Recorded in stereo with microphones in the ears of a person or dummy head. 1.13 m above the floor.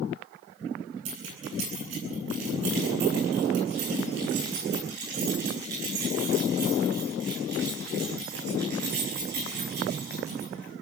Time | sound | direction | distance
1.1 | keys jangling | 75° right (ahead or behind) | 9.5 m